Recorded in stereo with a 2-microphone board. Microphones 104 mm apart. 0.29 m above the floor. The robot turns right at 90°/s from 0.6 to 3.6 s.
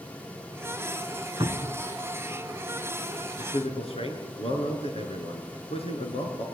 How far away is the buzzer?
No buzzer in this recording.